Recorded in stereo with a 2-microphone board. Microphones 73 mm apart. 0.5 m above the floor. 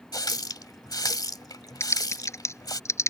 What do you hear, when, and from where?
0.1 s a running tap: 60° left (ahead or behind)
1.8 s typing on a keyboard: 40° left (ahead or behind)